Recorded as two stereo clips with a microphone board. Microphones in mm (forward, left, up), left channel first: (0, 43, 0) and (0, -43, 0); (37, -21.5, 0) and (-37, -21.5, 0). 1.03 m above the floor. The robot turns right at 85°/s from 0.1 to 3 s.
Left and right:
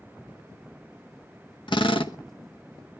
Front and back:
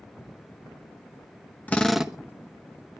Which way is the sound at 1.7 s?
70° left.